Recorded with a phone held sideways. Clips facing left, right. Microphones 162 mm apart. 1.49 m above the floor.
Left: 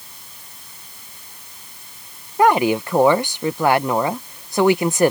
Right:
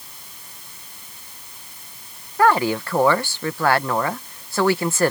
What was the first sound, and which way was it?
A woman speaking, 20° left (ahead or behind).